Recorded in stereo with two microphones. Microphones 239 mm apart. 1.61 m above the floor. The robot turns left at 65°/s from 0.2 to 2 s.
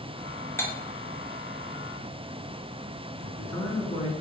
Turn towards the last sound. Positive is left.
turn(degrees=-70)  # may be behind; listen again after turning